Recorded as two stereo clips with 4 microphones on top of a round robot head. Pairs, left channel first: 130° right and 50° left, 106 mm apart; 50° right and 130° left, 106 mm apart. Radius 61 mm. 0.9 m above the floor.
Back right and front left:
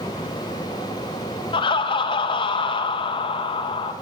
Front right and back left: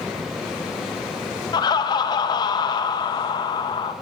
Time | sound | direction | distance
1.5 | laughter | 95° right | 0.6 m